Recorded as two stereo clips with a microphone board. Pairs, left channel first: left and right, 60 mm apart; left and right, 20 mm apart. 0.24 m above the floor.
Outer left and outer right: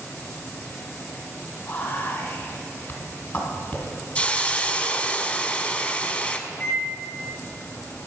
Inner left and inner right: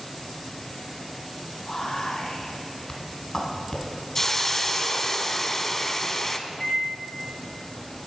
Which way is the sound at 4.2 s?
25° left (ahead or behind).